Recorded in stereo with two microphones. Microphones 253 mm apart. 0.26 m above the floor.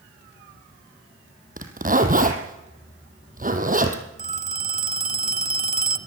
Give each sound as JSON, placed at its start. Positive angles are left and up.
{"t": 1.6, "sound": "a zipper", "side_deg": -35, "distance_m": 2.5}
{"t": 4.2, "sound": "a phone ringing", "side_deg": -30, "distance_m": 1.2}